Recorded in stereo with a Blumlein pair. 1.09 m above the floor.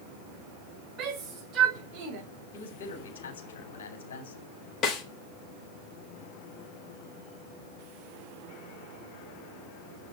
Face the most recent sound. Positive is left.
turn(degrees=25)